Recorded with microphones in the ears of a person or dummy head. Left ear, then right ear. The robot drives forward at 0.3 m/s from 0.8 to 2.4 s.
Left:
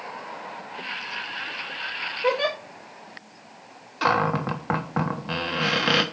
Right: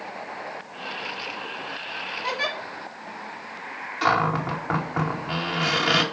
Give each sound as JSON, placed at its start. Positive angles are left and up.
{"t": 2.2, "sound": "a giggle", "side_deg": 35, "distance_m": 4.5}
{"t": 4.0, "sound": "a cupboard door", "side_deg": 20, "distance_m": 1.3}